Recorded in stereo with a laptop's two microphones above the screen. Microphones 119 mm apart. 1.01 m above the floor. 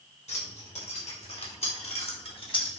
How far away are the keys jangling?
About 3 m.